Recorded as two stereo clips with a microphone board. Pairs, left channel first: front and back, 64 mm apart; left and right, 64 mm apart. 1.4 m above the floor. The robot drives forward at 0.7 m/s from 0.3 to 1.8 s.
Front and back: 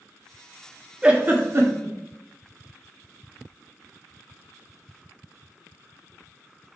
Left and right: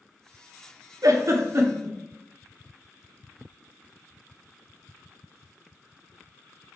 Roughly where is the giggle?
Right.